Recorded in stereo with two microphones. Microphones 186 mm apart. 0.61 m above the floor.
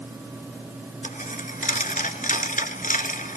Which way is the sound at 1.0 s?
45° left (ahead or behind).